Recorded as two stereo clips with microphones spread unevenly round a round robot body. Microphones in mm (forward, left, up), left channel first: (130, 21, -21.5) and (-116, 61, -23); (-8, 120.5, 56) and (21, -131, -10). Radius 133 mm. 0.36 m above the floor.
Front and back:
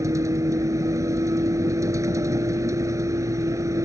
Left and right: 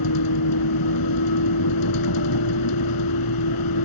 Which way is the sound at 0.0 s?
90° left.